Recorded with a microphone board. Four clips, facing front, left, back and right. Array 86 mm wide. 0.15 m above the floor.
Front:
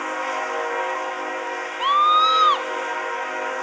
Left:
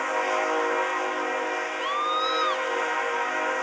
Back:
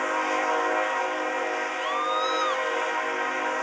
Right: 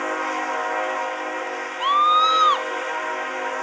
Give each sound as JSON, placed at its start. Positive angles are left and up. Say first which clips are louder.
{"t": 1.8, "sound": "a scream", "louder": "right 11 dB, front 12 dB", "azimuth_deg": -45}